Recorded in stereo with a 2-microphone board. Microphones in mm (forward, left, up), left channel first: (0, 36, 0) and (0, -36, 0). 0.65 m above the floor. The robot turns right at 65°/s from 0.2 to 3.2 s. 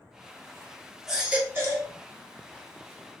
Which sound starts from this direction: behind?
A baby crying, at 1.1 s.